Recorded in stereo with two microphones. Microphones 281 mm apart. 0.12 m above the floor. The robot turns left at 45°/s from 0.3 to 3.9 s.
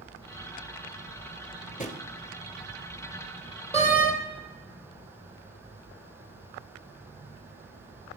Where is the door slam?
20° left (ahead or behind), 2.5 m; by 4.1 s 30° left (ahead or behind), 2.5 m.